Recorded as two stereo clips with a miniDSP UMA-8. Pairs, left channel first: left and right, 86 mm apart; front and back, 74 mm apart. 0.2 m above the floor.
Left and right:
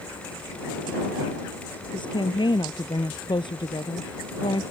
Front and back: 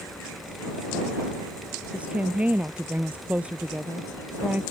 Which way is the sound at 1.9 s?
110° left.